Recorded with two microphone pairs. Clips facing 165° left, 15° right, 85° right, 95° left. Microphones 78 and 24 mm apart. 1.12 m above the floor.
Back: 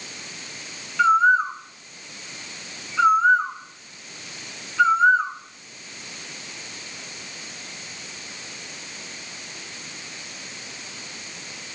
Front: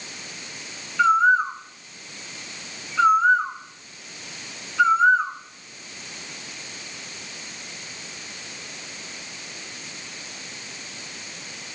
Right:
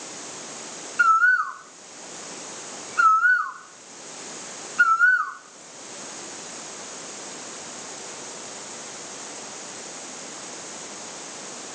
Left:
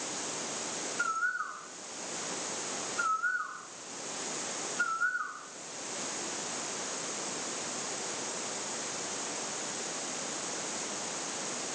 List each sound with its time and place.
1.0 s a bird: 105° right, 0.8 m